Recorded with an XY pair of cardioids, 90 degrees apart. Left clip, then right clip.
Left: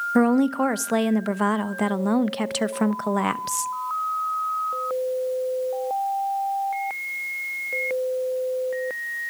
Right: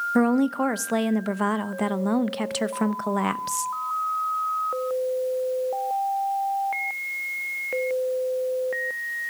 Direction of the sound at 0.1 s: 15° left.